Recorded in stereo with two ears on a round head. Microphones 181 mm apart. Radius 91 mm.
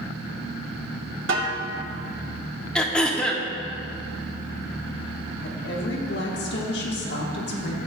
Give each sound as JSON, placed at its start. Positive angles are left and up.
{"t": 1.3, "sound": "a snare drum", "side_deg": -65, "distance_m": 1.8}
{"t": 2.8, "sound": "throat clearing", "side_deg": 5, "distance_m": 0.9}
{"t": 5.4, "sound": "a woman speaking", "side_deg": 60, "distance_m": 1.4}